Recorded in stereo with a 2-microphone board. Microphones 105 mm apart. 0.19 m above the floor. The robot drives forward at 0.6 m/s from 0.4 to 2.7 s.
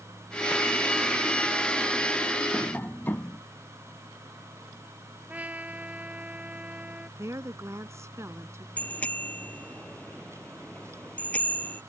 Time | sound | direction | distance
2.5 | tapping | 15° left (ahead or behind) | ?
5.3 | a trumpet | 15° right (ahead or behind) | ?
7.2 | a woman speaking | 30° right (ahead or behind) | ?
8.8 | a bicycle bell | 15° left (ahead or behind) | ?